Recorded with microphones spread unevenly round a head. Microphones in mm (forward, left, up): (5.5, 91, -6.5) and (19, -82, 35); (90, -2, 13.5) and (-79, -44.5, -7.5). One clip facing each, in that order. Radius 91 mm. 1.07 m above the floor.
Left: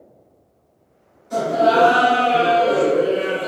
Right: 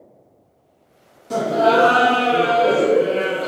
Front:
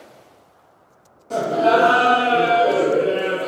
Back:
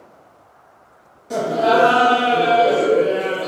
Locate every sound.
1.3 s laughter: 90° right, 0.7 m